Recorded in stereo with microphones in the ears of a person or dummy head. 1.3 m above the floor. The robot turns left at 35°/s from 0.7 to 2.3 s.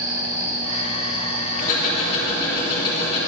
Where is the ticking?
50° left (ahead or behind), 3 m; by 3.2 s 25° left (ahead or behind), 3 m.